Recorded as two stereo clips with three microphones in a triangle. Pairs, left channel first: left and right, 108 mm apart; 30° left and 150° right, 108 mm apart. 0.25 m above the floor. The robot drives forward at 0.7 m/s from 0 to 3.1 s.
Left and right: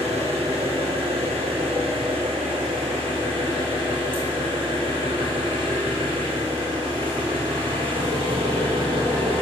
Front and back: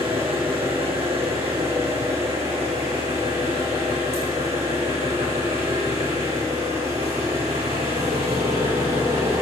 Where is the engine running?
115° right, 5.5 m; by 9.4 s 130° right, 7 m.